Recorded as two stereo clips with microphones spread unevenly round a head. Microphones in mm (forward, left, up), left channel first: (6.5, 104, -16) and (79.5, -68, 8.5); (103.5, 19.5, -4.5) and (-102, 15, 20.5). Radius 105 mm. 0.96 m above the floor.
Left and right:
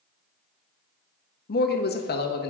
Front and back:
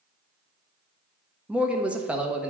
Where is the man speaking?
95° left, 1.1 m.